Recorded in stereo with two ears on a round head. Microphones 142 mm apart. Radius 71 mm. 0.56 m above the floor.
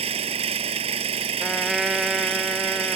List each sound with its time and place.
0.0 s an engine running: 40° right (ahead or behind)
1.4 s a trumpet: centre (ahead or behind)